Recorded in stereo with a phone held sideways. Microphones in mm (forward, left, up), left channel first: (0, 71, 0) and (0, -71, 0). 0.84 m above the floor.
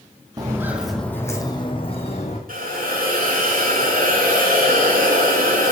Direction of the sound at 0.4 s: 25° right (ahead or behind).